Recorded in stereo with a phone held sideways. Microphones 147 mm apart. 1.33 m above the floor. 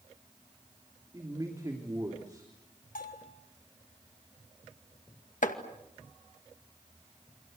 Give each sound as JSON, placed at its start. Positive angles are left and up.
{"t": 1.1, "sound": "a man speaking", "side_deg": -25, "distance_m": 3.0}
{"t": 3.0, "sound": "a bell", "side_deg": 80, "distance_m": 2.5}
{"t": 5.4, "sound": "chopping", "side_deg": 70, "distance_m": 2.0}